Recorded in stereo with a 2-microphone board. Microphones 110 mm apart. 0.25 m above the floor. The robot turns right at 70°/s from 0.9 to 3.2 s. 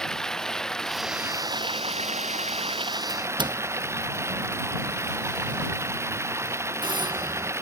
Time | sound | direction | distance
0.0 | running water | 175° left | ?
3.1 | a doorbell | 50° right (ahead or behind) | ?